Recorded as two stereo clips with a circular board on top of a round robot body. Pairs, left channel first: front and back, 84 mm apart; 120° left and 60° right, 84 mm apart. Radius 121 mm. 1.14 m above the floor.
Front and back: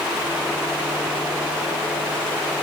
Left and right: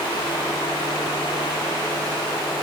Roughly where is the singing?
No singing in this recording.